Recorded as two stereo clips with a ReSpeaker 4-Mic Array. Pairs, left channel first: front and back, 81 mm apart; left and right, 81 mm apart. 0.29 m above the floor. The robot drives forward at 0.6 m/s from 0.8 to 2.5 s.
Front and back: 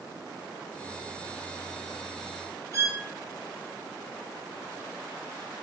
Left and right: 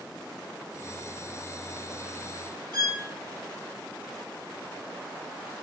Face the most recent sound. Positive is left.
turn(degrees=-125)